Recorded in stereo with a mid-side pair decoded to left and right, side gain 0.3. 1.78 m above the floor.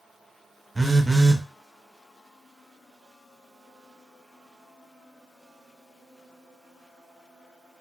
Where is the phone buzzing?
25° right, 0.6 m.